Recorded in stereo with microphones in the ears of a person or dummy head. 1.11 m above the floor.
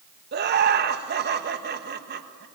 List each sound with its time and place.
0.3 s laughter: 50° right (ahead or behind), 1.4 m